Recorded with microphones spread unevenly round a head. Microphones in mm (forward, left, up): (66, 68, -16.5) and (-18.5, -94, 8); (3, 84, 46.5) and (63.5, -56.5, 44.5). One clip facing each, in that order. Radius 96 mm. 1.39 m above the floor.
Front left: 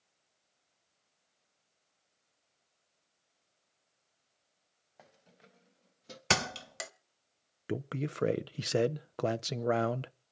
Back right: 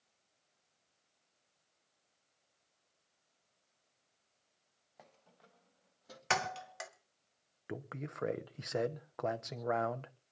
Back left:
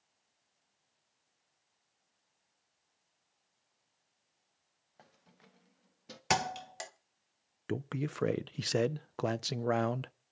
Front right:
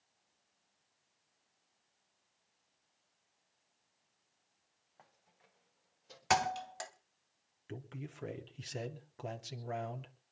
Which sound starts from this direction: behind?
Keys jangling, at 5.0 s.